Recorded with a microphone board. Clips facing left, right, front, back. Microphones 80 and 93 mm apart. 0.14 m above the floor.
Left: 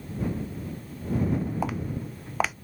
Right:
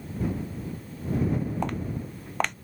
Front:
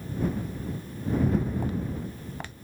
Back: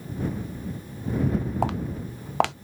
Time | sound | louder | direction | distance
1.6 | footsteps | even, back 4 dB | 175° left | ?